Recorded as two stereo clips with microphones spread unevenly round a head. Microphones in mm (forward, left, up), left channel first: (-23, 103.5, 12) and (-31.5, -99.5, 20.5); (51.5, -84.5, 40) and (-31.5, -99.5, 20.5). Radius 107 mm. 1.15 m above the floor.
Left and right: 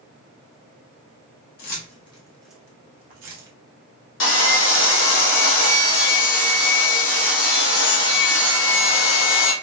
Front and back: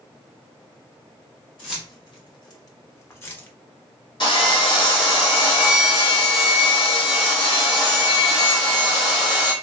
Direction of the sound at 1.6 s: 40° left.